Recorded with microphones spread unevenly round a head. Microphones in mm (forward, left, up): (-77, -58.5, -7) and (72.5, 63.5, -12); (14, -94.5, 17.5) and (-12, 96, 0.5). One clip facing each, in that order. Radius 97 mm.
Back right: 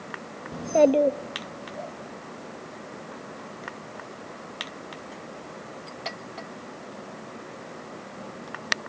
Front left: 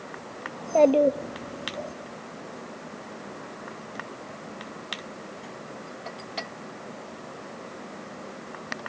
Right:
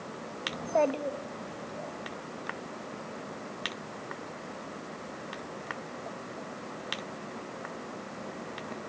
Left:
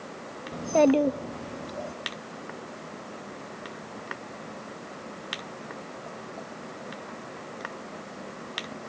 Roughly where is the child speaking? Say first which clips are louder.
Even, left 7 dB; behind.